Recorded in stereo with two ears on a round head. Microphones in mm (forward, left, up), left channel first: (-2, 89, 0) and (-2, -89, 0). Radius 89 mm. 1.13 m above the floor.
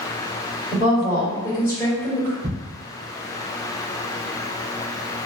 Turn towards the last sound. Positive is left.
turn(degrees=-30)  # may be behind; listen again after turning